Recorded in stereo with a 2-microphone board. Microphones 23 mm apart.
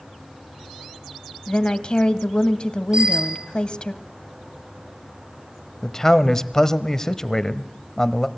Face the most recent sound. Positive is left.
turn(degrees=20)  # may be behind; listen again after turning